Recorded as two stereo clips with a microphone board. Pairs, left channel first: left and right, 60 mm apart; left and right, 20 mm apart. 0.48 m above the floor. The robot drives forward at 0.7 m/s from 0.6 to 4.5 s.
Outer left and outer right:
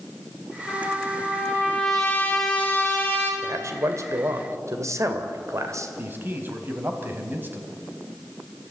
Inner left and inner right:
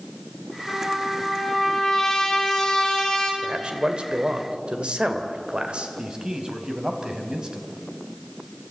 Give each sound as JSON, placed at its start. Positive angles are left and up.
{"t": 0.7, "sound": "a trumpet", "side_deg": 20, "distance_m": 5.5}
{"t": 3.4, "sound": "a man speaking", "side_deg": -55, "distance_m": 2.0}
{"t": 6.0, "sound": "a man speaking", "side_deg": -35, "distance_m": 3.0}